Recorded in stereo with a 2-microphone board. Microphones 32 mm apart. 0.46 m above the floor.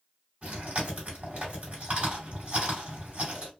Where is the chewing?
60° right (ahead or behind), 2.5 m.